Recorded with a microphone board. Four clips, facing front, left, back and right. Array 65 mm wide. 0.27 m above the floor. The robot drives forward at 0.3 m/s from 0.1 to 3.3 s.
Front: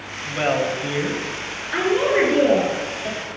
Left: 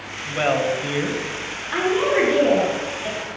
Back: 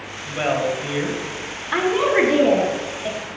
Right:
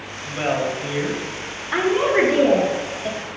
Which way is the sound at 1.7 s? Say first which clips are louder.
Right 1 dB, back 1 dB; 160° right.